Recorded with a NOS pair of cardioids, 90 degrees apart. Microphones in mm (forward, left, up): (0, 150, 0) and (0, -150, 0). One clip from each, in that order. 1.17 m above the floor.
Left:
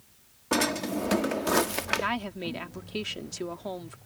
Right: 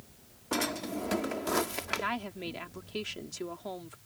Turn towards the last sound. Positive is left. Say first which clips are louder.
# left 4 dB
turn(degrees=25)